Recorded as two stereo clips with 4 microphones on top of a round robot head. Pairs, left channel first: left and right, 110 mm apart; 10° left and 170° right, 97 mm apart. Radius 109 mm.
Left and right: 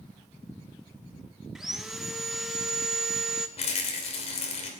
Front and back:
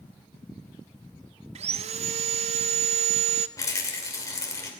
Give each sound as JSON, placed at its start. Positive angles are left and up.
{"t": 1.6, "sound": "sawing", "azimuth_deg": 180, "distance_m": 0.7}
{"t": 3.6, "sound": "a rattle", "azimuth_deg": 65, "distance_m": 2.5}